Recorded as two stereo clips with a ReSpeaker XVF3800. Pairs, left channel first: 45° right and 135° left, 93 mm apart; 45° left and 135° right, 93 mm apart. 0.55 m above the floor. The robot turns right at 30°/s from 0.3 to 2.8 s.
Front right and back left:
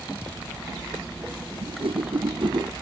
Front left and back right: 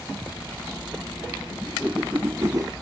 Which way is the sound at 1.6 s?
140° left.